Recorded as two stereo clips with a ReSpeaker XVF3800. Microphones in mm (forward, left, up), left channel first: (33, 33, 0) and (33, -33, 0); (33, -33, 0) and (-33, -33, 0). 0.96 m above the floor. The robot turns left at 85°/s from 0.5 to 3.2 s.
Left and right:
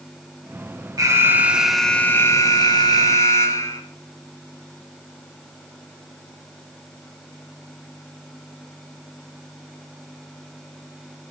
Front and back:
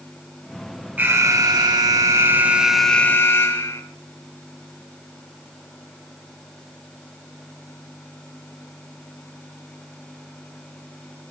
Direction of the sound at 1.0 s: 115° right.